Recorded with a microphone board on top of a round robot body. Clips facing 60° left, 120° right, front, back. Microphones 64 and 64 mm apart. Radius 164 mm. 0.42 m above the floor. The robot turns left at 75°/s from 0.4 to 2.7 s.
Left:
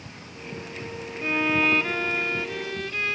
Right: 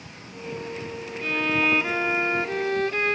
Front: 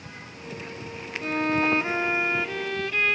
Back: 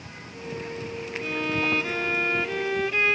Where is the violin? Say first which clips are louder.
Left 1 dB, front 4 dB; 5° left; by 3.2 s 105° right.